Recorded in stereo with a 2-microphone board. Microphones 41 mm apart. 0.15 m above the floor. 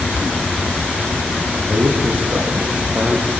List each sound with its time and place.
1.7 s a man speaking: 60° right (ahead or behind), 7.5 m; by 3.3 s 55° right (ahead or behind), 6.5 m